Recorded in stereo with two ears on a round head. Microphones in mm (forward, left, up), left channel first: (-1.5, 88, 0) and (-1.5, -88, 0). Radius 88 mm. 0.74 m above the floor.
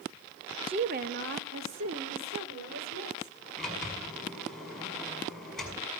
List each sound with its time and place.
0.7 s a woman speaking: 25° right (ahead or behind), 0.7 m; by 3.4 s 80° right, 3.5 m
3.6 s a sliding door: 5° left (ahead or behind), 5 m